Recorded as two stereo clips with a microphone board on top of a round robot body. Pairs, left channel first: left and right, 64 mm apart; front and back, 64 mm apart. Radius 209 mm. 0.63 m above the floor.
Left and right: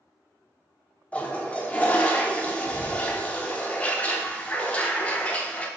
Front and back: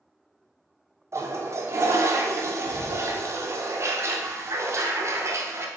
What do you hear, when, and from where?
1.1 s a toilet flushing: 150° left, 0.8 m